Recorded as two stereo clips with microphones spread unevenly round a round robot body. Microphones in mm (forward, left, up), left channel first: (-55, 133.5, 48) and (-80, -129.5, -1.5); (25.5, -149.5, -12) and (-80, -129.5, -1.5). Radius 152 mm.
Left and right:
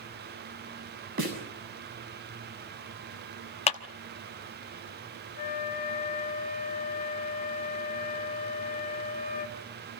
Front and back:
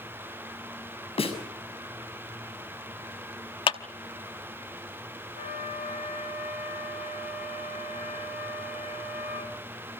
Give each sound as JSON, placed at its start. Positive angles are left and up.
{"t": 1.2, "sound": "a snare drum", "azimuth_deg": -35, "distance_m": 6.5}
{"t": 3.7, "sound": "a clap", "azimuth_deg": 10, "distance_m": 0.8}
{"t": 5.3, "sound": "a flute", "azimuth_deg": 20, "distance_m": 2.5}